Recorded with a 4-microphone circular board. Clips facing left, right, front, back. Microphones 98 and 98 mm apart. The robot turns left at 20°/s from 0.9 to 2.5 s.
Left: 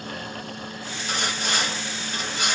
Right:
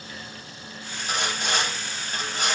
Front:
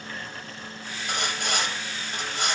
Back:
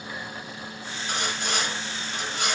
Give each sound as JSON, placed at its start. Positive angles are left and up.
{"t": 1.1, "sound": "sawing", "azimuth_deg": -20, "distance_m": 1.7}